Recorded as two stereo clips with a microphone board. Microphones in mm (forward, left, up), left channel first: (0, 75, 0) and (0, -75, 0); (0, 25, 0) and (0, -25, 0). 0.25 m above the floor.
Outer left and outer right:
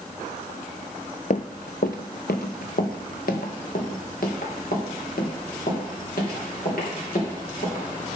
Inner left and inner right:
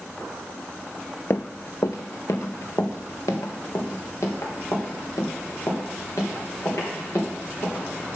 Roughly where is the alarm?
No alarm in this recording.